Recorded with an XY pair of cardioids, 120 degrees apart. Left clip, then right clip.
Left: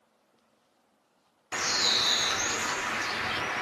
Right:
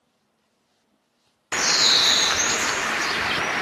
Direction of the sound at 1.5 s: 50° right.